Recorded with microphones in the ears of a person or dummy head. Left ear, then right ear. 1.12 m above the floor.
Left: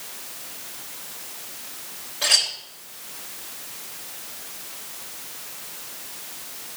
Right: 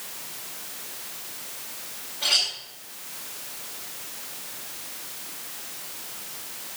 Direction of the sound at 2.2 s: 75° left (ahead or behind).